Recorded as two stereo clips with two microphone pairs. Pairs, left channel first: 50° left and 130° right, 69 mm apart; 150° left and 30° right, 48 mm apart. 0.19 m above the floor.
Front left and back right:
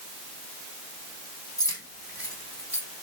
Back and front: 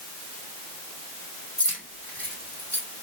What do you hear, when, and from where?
1.6 s keys jangling: 90° left, 5.5 m; by 2.8 s 100° left, 5 m